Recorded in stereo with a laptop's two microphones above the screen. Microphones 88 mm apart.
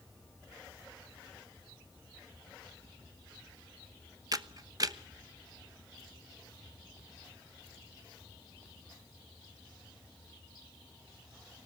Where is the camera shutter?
45° right (ahead or behind), 1.0 m.